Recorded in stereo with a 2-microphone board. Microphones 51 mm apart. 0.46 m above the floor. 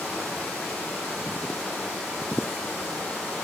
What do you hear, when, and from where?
0.0 s running water: 25° left (ahead or behind), 7.5 m